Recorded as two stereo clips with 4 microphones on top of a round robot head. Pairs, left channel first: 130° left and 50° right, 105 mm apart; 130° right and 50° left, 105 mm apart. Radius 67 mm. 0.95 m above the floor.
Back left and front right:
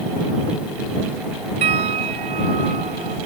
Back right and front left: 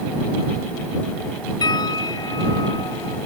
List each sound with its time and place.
1.6 s a piano: 80° right